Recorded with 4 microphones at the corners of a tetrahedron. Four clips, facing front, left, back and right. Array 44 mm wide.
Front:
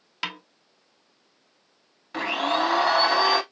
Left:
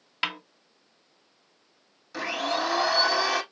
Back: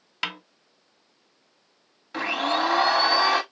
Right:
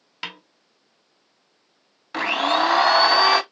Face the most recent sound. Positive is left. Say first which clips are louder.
# right 8 dB, even
turn(degrees=-90)